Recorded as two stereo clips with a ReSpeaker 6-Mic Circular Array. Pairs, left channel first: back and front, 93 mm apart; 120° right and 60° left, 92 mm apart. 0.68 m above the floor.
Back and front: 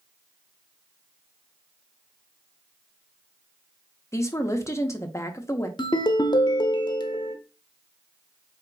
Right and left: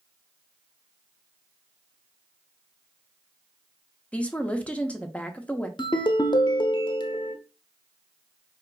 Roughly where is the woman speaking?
Behind.